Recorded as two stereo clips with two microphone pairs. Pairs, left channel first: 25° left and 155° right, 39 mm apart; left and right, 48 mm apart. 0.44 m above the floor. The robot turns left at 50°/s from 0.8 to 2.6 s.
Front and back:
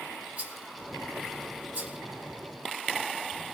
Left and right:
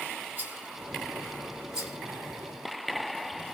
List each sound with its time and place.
0.4 s a rattle: 115° right, 1.3 m; by 2.0 s 175° right, 1.3 m